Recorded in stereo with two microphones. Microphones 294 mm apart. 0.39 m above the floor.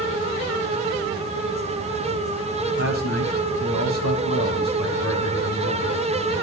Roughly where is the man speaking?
Left.